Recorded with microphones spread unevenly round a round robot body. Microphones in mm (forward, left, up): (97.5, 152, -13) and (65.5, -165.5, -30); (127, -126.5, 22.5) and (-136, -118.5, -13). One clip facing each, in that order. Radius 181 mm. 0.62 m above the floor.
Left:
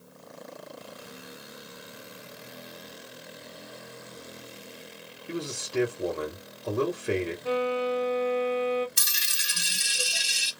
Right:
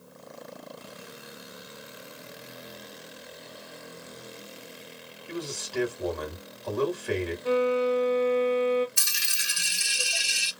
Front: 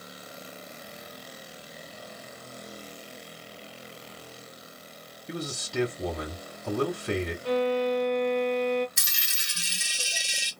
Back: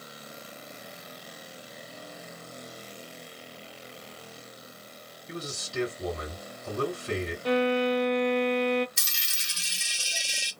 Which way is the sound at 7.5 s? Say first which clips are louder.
Right 5 dB, back 1 dB; 165° right.